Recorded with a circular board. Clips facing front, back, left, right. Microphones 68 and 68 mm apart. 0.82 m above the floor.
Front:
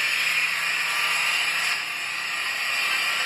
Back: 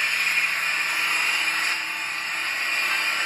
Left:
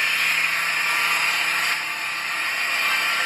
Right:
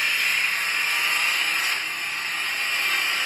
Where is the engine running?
130° left, 1.3 m.